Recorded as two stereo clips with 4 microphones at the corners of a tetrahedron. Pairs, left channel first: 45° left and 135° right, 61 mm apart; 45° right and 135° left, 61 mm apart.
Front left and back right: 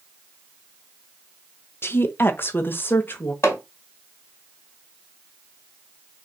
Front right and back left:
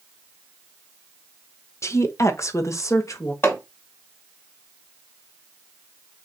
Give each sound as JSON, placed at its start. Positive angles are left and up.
{"t": 1.8, "sound": "a woman speaking", "azimuth_deg": -5, "distance_m": 0.9}
{"t": 3.4, "sound": "hammering", "azimuth_deg": -5, "distance_m": 3.0}